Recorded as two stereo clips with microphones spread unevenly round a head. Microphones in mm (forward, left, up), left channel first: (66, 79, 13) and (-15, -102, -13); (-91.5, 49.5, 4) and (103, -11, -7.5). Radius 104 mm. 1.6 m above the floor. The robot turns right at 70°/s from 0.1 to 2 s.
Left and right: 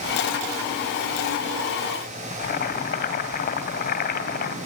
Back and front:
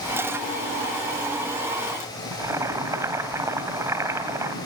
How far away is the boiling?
About 2 m.